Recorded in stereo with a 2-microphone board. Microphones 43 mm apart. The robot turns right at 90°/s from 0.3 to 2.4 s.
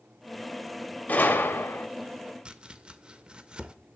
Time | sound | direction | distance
1.1 | a gunshot | 40° left | 0.8 m
2.5 | chopping | 25° right (ahead or behind) | 0.5 m